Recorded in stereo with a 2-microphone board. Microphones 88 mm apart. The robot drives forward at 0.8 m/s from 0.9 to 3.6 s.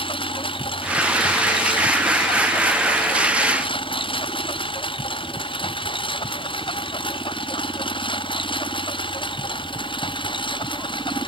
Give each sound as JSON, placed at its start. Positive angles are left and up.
{"t": 0.0, "sound": "a lawn mower", "side_deg": 80}